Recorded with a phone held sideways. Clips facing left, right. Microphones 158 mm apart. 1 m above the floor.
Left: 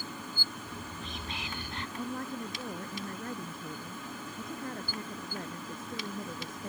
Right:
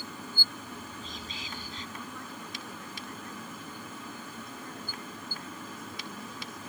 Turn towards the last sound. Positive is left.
turn(degrees=50)  # may be behind; listen again after turning